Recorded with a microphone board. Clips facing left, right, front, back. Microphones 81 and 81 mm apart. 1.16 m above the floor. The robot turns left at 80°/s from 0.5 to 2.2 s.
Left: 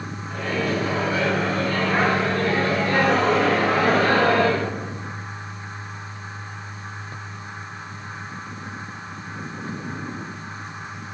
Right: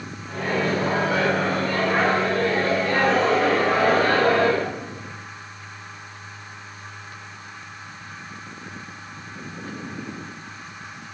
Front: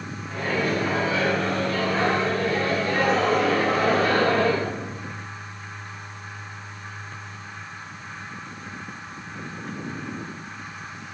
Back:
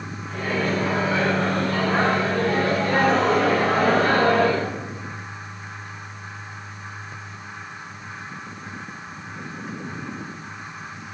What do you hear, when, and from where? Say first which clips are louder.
0.3 s a microwave: right 1 dB, back 1 dB; 65° right, 8 m; by 4.7 s 160° left, 8 m